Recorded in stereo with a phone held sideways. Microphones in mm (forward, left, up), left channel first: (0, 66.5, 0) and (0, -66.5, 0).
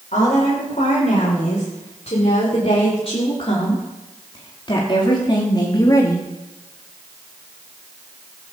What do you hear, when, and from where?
0.1 s a woman speaking: 60° left (ahead or behind), 5.5 m; by 6.3 s 25° left (ahead or behind), 2.5 m